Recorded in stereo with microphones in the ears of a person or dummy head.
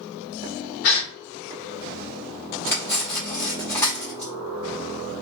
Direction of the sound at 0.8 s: 50° left (ahead or behind).